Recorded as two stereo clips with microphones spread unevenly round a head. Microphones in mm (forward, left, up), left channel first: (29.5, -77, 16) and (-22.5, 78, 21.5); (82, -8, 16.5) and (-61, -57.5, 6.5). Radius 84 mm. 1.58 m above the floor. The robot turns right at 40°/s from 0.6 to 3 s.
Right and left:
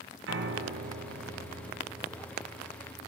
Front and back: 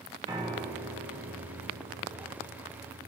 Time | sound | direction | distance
0.3 | a piano | 125° left | 0.8 m